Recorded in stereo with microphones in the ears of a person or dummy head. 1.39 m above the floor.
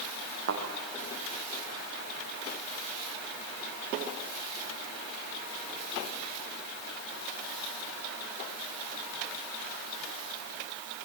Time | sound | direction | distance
0.5 | a thud | 65° right (ahead or behind) | 5 m